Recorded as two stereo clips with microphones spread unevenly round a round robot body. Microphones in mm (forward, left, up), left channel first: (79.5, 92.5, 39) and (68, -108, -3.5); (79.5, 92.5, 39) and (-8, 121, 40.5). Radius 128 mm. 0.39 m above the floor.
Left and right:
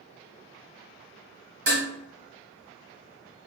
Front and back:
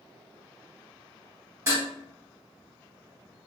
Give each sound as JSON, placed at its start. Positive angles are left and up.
{"t": 1.7, "sound": "dishes clattering", "azimuth_deg": -130, "distance_m": 1.6}